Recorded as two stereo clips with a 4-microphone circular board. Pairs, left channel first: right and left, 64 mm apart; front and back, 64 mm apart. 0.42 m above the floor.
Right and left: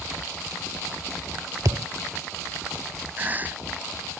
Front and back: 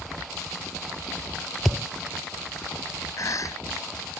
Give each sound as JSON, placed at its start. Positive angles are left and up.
{"t": 1.6, "sound": "a thud", "azimuth_deg": 95}
{"t": 3.2, "sound": "a cough", "azimuth_deg": 30}